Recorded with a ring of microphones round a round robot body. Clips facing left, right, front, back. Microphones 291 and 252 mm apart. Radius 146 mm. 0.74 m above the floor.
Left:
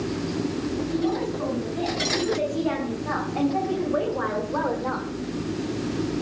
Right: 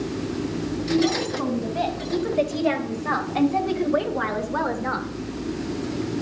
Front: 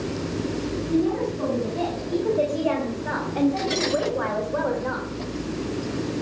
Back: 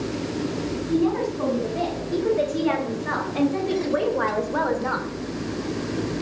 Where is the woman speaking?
105° right, 4.5 m; by 5.1 s 145° right, 1.8 m.